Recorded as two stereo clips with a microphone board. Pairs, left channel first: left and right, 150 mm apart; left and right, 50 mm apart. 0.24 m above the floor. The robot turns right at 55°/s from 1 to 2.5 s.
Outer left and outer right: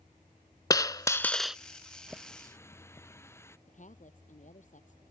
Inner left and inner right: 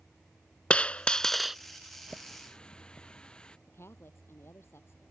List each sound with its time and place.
0.7 s a dropped coin: 155° left; by 1.6 s 175° right
2.1 s a running tap: 5° right (ahead or behind); by 3.6 s 15° left (ahead or behind)
3.7 s a woman speaking: 55° left (ahead or behind)